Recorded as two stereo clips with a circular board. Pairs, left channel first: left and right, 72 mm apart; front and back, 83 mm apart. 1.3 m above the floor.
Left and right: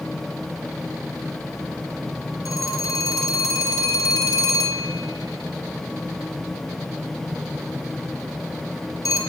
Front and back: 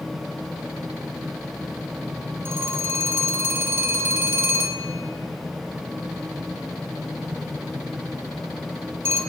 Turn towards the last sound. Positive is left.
turn(degrees=120)